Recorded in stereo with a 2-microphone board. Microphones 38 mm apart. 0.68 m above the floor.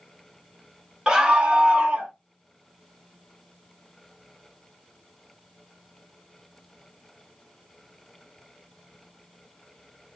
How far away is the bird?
No bird in this recording.